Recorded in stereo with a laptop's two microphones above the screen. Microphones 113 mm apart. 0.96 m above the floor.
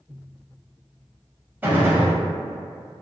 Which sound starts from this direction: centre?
A gunshot, at 1.6 s.